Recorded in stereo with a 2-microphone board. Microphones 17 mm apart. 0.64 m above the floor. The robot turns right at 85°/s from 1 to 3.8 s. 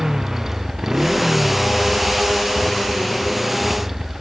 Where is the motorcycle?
30° right (ahead or behind); by 4.2 s 20° right (ahead or behind).